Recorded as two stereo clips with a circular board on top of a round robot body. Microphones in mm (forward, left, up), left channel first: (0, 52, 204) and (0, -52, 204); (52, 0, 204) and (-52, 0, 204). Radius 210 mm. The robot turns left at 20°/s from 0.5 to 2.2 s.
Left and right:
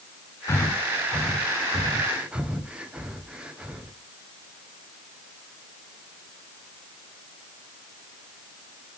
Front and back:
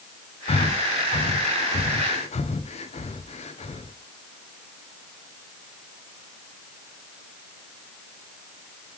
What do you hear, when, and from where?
0.5 s breathing: 25° left, 0.6 m; by 3.9 s 10° right, 0.6 m